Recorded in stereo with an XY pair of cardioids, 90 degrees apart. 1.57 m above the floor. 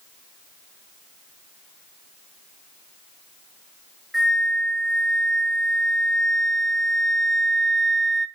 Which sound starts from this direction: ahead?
A flute, at 4.1 s.